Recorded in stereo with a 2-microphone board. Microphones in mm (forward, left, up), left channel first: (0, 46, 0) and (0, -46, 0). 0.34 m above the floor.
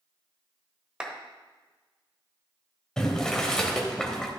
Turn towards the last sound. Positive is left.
turn(degrees=10)  # may be behind; listen again after turning